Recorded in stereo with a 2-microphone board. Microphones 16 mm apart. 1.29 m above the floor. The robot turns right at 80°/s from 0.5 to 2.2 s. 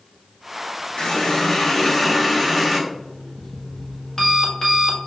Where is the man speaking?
No man speaking in this recording.